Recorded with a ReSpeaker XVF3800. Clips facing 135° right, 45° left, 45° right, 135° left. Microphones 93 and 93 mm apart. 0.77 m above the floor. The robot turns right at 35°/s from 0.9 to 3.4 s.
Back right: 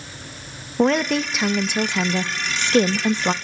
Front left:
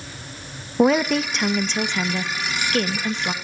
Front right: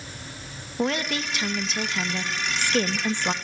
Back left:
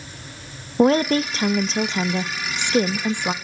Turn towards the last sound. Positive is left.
turn(degrees=-145)